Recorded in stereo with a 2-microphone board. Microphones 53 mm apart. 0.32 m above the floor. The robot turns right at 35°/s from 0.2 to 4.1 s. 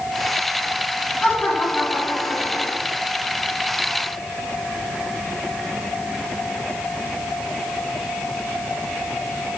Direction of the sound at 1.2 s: 10° left.